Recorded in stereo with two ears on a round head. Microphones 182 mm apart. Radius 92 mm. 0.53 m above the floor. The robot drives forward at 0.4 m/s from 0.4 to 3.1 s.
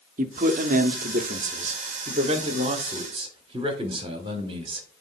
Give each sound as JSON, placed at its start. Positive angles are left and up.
{"t": 0.2, "sound": "a man speaking", "side_deg": -40, "distance_m": 0.9}